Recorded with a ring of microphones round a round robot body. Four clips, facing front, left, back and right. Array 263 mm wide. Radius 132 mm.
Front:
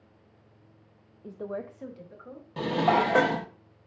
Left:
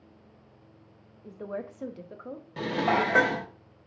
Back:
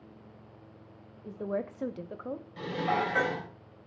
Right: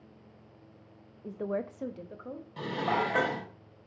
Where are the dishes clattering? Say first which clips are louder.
Left 4 dB, front 7 dB; 30° left, 0.9 m.